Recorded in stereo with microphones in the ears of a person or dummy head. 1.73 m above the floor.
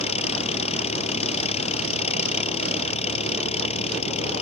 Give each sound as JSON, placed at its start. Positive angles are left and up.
{"t": 0.0, "sound": "an engine running", "side_deg": 40}